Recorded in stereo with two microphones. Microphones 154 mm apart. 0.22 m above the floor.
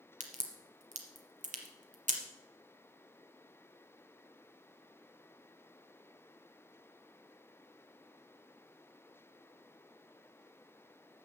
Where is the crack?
55° right (ahead or behind), 1.5 m.